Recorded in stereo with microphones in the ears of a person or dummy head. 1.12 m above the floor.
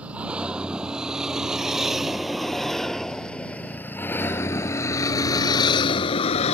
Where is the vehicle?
5° right (ahead or behind); by 6.6 s 40° left (ahead or behind).